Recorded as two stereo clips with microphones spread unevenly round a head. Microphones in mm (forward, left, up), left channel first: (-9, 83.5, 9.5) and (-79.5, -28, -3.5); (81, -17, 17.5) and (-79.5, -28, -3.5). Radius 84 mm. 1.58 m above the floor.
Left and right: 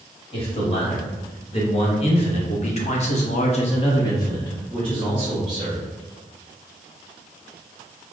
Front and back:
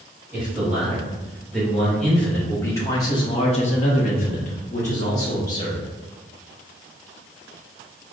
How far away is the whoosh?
I don't hear a whoosh.